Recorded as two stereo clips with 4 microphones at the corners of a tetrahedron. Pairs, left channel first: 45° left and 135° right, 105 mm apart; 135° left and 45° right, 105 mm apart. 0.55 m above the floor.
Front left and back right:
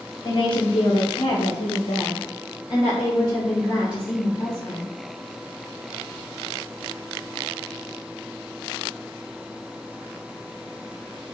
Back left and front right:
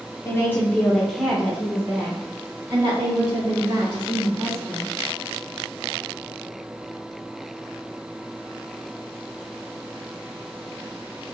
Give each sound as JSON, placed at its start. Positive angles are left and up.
{"t": 0.2, "sound": "a woman speaking", "azimuth_deg": 75, "distance_m": 1.1}